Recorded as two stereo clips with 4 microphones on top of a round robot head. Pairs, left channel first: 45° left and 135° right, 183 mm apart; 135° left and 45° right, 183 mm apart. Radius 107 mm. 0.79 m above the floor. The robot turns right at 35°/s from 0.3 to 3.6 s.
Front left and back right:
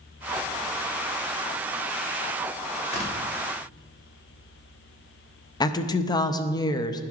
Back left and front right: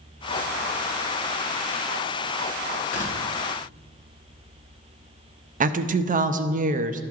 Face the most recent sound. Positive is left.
turn(degrees=-20)